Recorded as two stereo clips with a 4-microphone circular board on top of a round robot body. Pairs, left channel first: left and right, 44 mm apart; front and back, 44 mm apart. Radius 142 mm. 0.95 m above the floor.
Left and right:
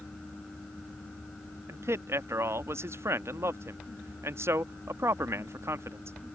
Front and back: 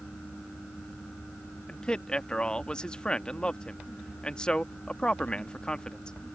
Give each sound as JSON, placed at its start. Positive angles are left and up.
{"t": 1.7, "sound": "a man speaking", "azimuth_deg": -75}